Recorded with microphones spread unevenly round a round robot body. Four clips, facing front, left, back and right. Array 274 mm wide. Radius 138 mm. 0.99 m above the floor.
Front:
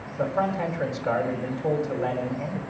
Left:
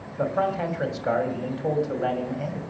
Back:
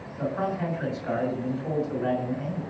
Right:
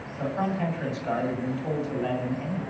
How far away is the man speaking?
About 6.5 m.